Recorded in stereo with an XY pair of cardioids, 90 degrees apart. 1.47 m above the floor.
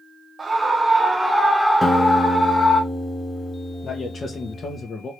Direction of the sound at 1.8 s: 5° left.